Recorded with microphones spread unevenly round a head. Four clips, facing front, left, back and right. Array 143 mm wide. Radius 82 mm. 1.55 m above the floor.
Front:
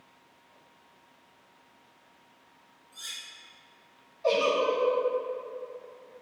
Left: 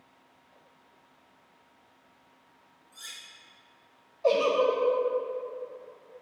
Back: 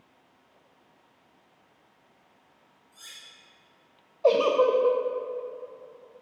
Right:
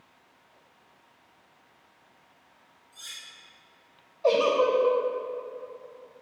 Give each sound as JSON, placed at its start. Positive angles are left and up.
{"t": 2.9, "sound": "cutlery clinking", "azimuth_deg": 105, "distance_m": 2.0}
{"t": 4.2, "sound": "a giggle", "azimuth_deg": -170, "distance_m": 0.6}